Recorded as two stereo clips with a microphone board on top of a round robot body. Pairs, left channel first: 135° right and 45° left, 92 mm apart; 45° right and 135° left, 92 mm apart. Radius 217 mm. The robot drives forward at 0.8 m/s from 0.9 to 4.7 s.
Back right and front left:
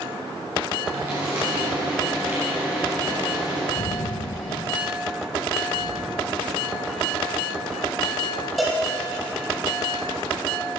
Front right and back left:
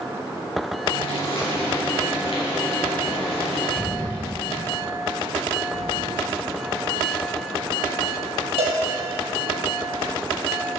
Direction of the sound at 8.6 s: 140° left.